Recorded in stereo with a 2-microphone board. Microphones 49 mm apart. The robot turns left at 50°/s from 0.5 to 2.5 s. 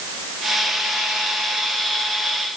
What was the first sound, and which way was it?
Only background noise.